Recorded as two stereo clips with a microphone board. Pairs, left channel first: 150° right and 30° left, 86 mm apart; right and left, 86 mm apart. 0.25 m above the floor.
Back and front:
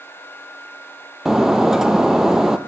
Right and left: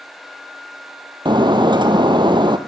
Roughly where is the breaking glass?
Behind left.